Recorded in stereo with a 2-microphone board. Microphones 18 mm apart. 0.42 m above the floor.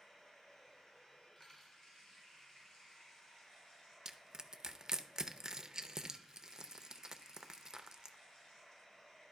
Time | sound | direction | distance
0.0 | running water | 55° left (ahead or behind) | 4.5 m
1.4 | cutlery clinking | 30° left (ahead or behind) | 2.0 m
4.0 | crushing | 40° right (ahead or behind) | 0.5 m